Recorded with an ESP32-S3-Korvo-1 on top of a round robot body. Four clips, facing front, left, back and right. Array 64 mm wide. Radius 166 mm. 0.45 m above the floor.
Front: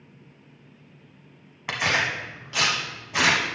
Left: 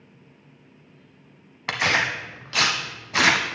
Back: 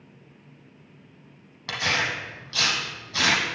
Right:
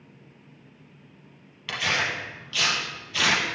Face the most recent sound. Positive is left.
turn(degrees=75)